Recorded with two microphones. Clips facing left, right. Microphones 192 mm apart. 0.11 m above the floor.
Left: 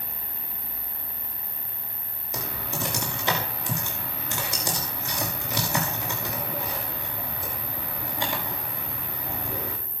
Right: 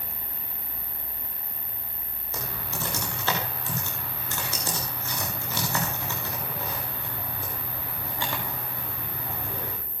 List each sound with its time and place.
0.0 s an insect: 75° right (ahead or behind), 5 m
2.3 s typing on a keyboard: 15° left (ahead or behind), 6.5 m